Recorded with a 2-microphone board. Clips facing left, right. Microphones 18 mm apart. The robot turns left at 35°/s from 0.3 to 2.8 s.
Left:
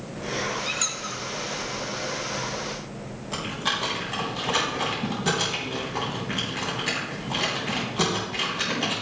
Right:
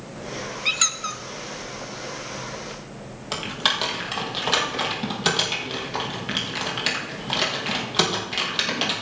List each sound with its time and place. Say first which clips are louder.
0.7 s a squeak: right 5 dB; 30° right (ahead or behind), 0.7 m; by 1.2 s 25° right (ahead or behind), 0.7 m
3.3 s typing on a keyboard: right 4 dB; 70° right (ahead or behind), 4.5 m